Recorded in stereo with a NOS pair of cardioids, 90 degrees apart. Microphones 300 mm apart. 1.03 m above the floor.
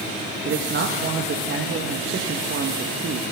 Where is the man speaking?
40° right, 1.3 m.